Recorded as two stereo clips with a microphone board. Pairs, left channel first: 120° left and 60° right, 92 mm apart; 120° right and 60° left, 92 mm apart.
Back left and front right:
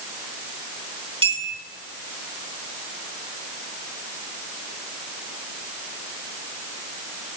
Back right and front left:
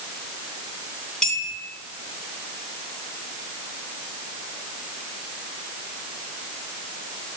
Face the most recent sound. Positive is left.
turn(degrees=-35)